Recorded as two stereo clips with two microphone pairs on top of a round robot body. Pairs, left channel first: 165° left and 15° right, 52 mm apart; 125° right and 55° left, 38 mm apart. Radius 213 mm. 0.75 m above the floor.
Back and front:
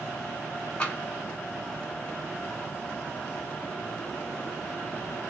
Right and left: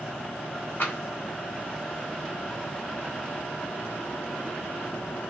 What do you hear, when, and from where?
0.8 s tapping: 135° right, 1.7 m